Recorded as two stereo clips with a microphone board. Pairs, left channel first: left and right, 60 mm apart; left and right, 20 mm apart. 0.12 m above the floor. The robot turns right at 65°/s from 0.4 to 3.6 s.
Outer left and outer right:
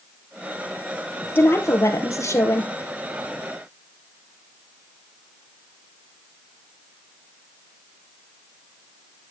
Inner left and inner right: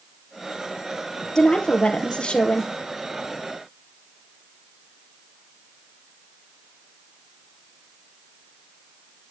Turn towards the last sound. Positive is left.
turn(degrees=-175)